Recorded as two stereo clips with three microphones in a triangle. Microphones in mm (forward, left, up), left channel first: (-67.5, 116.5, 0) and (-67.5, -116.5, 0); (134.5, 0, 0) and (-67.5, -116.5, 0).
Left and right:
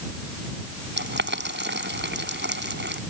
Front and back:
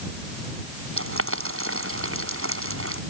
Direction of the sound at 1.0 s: 130° right.